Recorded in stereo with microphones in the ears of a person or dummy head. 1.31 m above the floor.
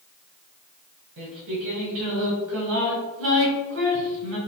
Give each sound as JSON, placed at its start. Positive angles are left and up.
{"t": 1.2, "sound": "singing", "side_deg": -60, "distance_m": 1.7}